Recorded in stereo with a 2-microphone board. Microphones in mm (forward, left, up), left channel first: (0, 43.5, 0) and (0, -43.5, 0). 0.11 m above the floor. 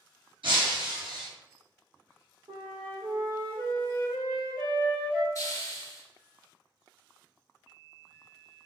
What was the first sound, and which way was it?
Breaking glass, 75° right (ahead or behind).